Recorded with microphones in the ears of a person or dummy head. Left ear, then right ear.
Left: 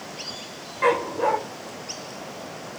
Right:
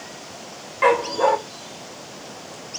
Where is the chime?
No chime in this recording.